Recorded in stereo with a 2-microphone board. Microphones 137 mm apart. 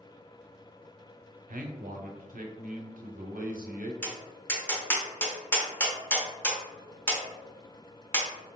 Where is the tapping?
15° left (ahead or behind), 0.8 m.